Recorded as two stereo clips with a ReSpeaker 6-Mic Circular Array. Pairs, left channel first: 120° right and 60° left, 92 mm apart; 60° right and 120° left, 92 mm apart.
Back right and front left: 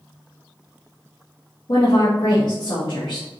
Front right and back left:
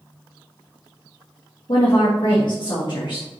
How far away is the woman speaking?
About 1.1 m.